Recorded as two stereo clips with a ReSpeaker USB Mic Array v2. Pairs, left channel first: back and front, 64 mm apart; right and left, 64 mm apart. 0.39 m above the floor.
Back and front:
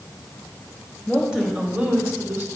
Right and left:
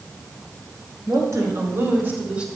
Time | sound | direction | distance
1.1 | a woman speaking | 80° left | 2.5 m